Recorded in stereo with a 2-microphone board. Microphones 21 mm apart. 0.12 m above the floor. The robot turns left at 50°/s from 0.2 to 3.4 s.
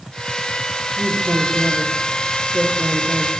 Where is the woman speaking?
105° right, 7.5 m; by 3.3 s 140° left, 7.5 m.